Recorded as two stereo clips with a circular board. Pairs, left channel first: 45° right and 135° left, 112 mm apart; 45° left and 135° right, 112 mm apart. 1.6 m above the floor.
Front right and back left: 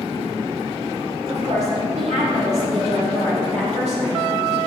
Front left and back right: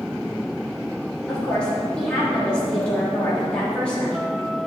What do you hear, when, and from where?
1.3 s a woman speaking: 125° left, 4.5 m